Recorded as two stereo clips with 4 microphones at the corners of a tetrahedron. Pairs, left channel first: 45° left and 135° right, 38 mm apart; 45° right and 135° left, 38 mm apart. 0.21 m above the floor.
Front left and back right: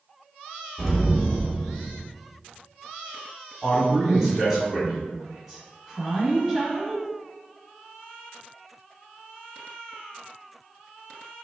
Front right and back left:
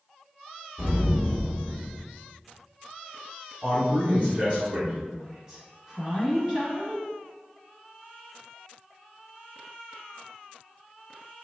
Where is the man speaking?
155° left, 1.6 m.